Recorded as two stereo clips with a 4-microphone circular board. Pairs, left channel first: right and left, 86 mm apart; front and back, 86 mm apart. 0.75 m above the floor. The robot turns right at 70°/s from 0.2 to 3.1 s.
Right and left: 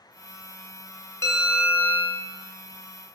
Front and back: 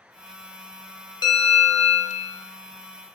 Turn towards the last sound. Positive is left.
turn(degrees=95)